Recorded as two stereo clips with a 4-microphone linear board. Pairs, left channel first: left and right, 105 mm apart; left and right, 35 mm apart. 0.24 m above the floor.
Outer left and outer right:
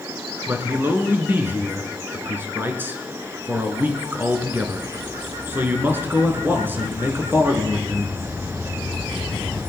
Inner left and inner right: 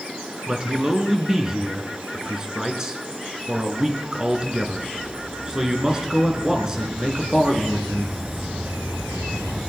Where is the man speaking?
20° right (ahead or behind), 3.5 m.